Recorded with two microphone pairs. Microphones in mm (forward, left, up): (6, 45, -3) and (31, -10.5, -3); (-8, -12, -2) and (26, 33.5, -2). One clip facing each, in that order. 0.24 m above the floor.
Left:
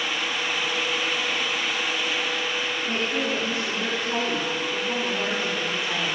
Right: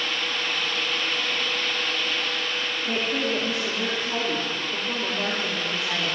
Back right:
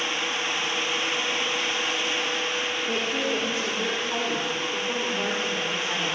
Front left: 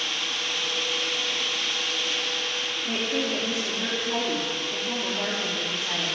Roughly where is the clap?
I don't hear a clap.